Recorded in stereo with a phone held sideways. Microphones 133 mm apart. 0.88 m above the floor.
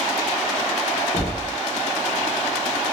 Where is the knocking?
20° left (ahead or behind), 0.8 m.